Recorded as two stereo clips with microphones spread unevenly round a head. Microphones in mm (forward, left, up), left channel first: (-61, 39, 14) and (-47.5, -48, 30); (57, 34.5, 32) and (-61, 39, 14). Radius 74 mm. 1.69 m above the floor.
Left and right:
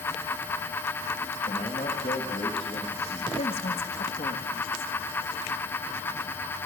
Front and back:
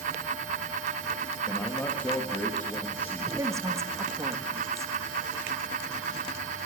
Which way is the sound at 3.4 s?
110° left.